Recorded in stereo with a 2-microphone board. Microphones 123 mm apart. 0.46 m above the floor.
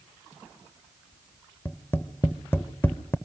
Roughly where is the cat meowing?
No cat meowing in this recording.